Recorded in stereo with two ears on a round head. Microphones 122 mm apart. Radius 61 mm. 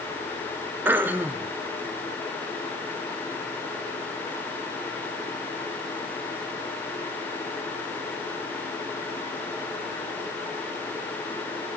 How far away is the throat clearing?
About 0.8 m.